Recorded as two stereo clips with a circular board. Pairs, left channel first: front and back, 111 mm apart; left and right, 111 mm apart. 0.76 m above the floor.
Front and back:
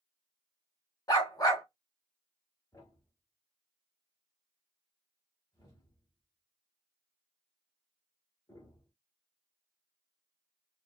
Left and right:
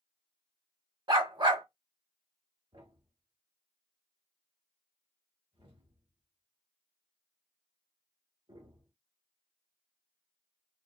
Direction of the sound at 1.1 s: 50° right.